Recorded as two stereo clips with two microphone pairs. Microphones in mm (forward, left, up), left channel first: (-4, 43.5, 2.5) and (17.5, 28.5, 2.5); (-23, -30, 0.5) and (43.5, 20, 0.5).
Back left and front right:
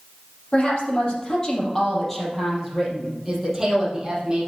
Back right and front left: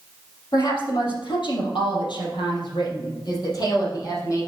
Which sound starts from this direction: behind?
A woman speaking, at 0.5 s.